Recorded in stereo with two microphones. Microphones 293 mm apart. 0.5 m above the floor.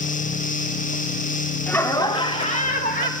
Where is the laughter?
5° left (ahead or behind), 1.3 m; by 3.1 s 30° left (ahead or behind), 2.0 m.